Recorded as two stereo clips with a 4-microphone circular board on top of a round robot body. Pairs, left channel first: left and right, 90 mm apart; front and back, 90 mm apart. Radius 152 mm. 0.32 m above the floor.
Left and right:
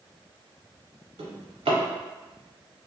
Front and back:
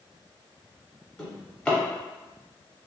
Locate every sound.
1.2 s a drawer: 80° right, 0.8 m